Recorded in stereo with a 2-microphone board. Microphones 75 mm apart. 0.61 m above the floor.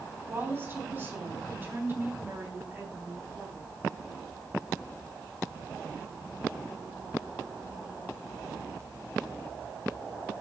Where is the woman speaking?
25° right (ahead or behind), 4 m.